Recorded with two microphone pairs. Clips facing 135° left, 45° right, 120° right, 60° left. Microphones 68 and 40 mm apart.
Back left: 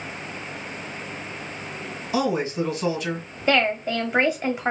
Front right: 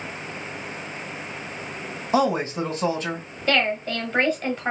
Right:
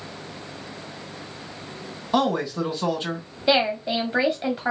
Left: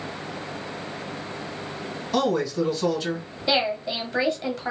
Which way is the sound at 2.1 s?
70° right.